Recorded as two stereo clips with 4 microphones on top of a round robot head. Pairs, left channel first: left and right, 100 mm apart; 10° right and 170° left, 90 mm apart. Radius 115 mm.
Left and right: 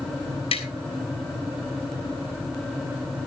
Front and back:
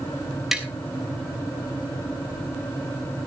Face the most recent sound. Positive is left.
turn(degrees=85)